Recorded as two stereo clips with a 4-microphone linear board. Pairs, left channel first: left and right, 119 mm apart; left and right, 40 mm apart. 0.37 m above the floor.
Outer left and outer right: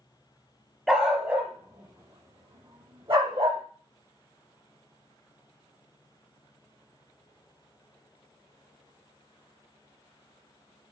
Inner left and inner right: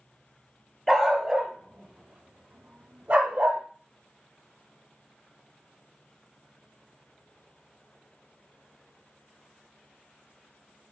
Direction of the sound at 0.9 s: 5° right (ahead or behind).